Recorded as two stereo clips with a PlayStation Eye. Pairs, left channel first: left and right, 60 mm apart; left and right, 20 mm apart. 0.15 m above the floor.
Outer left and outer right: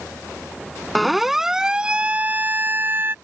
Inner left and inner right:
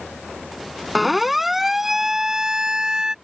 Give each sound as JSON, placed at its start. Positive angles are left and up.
{"t": 0.9, "sound": "a siren", "side_deg": 0}